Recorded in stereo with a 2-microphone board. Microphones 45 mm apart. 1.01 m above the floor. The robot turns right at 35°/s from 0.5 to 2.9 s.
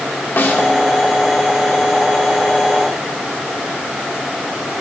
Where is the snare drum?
55° left (ahead or behind), 1.5 m; by 0.7 s 60° left (ahead or behind), 1.5 m.